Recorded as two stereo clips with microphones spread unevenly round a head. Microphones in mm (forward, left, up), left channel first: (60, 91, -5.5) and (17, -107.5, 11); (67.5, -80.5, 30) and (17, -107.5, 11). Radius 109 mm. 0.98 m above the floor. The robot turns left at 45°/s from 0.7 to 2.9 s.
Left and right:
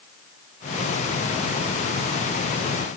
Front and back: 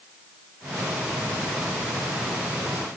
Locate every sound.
Only background noise.